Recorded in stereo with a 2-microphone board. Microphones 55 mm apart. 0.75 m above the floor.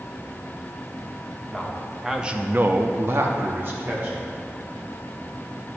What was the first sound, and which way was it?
A man speaking, 5° left (ahead or behind).